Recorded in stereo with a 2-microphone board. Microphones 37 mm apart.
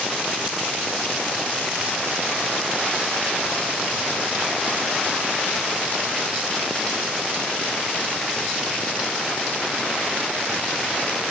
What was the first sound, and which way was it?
Only background noise.